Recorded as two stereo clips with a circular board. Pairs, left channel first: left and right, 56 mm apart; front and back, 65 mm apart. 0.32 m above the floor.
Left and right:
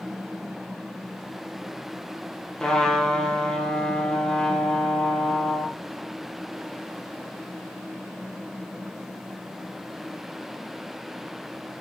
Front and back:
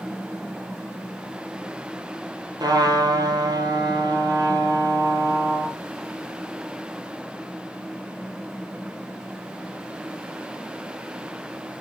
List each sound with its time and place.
2.6 s a trumpet: 170° left, 2 m